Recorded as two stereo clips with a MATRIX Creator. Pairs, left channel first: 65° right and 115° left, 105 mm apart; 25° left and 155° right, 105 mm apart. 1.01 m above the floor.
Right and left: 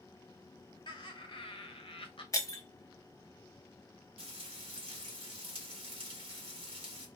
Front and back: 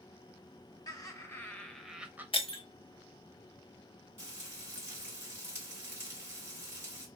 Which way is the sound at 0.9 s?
30° right.